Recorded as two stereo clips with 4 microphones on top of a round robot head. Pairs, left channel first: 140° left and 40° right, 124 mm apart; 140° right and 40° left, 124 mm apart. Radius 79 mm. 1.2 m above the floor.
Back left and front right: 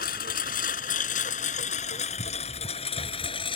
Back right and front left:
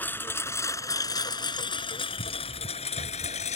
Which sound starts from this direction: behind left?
A lawn mower, at 0.0 s.